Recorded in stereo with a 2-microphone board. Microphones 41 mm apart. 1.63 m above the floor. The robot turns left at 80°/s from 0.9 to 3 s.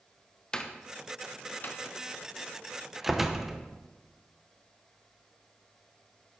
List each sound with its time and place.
0.5 s a door slam: 20° left (ahead or behind), 0.7 m; by 3.6 s 10° right (ahead or behind), 0.7 m